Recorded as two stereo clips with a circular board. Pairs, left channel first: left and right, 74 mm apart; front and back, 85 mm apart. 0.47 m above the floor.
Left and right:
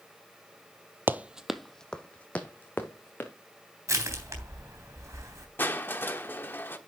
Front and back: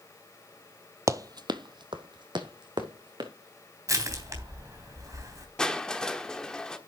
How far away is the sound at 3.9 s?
About 3.5 m.